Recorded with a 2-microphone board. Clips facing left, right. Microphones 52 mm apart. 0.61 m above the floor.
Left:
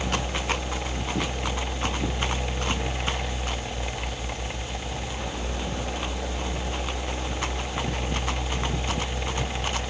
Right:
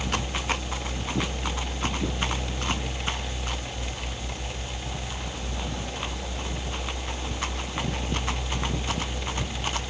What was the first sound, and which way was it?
Only background noise.